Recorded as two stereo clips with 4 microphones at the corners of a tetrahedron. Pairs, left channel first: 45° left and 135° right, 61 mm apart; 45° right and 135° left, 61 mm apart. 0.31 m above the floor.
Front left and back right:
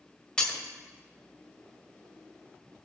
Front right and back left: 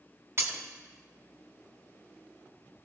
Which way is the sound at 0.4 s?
115° left.